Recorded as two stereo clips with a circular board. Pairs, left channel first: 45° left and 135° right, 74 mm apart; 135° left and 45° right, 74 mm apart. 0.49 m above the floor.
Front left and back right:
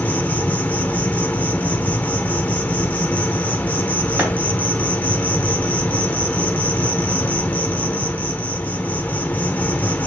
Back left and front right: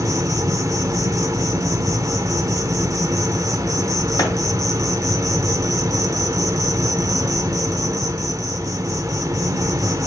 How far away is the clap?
About 2.5 m.